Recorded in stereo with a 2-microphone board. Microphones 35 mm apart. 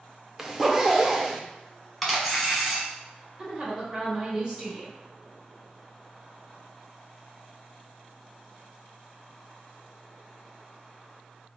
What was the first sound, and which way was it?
A zipper, 10° right (ahead or behind).